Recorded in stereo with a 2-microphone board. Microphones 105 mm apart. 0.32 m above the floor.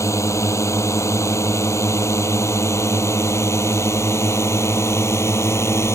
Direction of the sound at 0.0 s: 30° left (ahead or behind).